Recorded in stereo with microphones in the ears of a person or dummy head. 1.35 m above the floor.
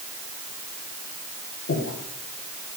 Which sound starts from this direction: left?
Breathing, at 1.7 s.